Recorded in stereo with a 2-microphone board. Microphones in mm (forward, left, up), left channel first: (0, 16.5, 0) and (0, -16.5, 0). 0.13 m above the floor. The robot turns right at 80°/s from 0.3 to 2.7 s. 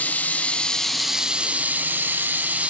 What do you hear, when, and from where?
0.0 s running water: 125° left, 1.2 m; by 2.7 s 45° right, 1.2 m